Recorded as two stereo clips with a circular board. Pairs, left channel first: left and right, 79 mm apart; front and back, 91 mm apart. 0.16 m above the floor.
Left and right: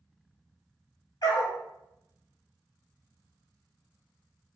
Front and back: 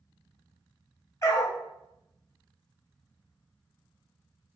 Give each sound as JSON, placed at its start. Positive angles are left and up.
{"t": 1.2, "sound": "a dog barking", "azimuth_deg": 55, "distance_m": 0.8}